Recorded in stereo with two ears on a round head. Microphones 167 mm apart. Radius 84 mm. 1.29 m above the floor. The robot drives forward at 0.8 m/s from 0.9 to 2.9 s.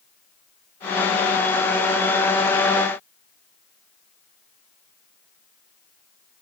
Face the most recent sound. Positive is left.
No sound to turn to.